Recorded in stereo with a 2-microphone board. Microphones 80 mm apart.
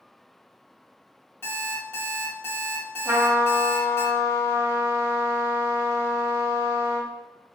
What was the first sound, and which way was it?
An alarm clock, 25° left (ahead or behind).